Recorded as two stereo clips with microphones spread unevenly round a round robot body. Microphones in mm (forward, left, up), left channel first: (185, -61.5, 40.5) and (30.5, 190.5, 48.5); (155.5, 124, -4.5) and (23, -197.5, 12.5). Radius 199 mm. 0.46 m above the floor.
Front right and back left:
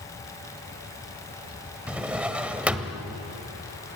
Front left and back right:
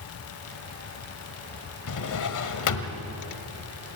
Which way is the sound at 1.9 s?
35° left.